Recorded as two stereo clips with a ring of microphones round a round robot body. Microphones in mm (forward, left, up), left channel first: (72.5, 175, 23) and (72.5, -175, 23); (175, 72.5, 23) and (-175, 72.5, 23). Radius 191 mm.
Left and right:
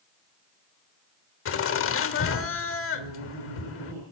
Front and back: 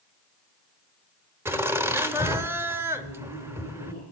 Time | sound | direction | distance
1.4 | laughter | 100° left | 1.1 m
2.9 | laughter | 110° right | 5 m